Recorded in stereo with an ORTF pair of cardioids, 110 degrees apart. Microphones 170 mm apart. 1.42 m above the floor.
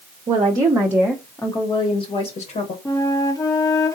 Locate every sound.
0.3 s a woman speaking: 35° right, 0.9 m; by 2.8 s 55° left, 1.2 m
2.9 s a flute: 20° left, 1.1 m